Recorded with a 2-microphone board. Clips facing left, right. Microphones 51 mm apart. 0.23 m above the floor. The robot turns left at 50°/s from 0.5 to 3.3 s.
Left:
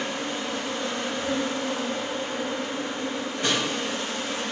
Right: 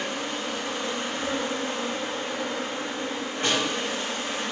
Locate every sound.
0.0 s an insect: 5° left, 1.1 m; by 4.5 s 135° right, 1.1 m
3.4 s a snare drum: 35° right (ahead or behind), 1.5 m